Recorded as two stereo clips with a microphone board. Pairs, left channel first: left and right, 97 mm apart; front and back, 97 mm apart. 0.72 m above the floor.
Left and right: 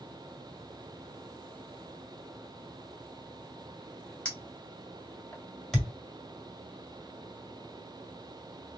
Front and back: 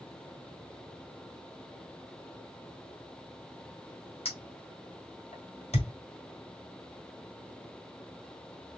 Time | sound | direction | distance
4.2 | a clink | 15° left | 2 m
5.7 | a thud | 5° left | 1.6 m